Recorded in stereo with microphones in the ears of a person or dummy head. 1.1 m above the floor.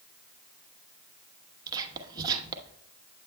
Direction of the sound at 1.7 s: 25° right (ahead or behind).